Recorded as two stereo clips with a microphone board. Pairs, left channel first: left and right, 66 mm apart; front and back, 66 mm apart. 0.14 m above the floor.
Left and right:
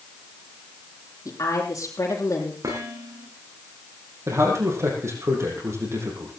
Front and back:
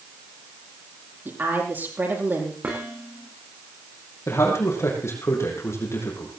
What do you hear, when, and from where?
1.2 s a woman speaking: 125° left, 6 m
2.6 s dishes clattering: 115° right, 7.5 m
4.3 s a man speaking: 45° right, 6.5 m